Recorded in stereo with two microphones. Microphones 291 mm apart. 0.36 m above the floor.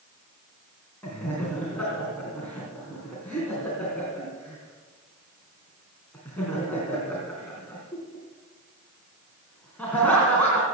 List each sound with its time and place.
1.0 s laughter: 5° left (ahead or behind), 3.5 m